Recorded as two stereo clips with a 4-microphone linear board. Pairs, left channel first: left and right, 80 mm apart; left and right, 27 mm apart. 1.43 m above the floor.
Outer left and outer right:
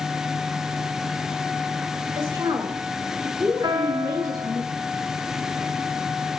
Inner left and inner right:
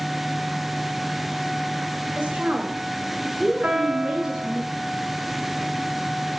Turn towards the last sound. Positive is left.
turn(degrees=-65)  # may be behind; listen again after turning